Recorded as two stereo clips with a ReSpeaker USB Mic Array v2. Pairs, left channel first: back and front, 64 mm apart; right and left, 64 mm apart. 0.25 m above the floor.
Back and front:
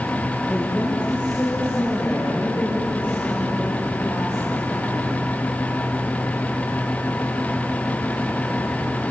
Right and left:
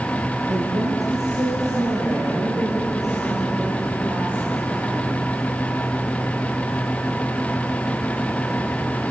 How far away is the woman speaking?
About 4.5 m.